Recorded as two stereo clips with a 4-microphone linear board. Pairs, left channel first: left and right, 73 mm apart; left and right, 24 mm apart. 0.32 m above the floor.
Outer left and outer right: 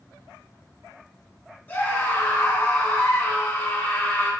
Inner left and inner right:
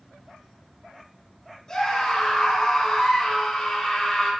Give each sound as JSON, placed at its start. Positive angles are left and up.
{"t": 1.7, "sound": "a scream", "side_deg": 30, "distance_m": 3.5}